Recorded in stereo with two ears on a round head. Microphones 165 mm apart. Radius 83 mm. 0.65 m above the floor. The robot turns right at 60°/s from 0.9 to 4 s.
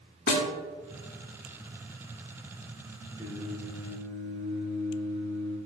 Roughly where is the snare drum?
Left.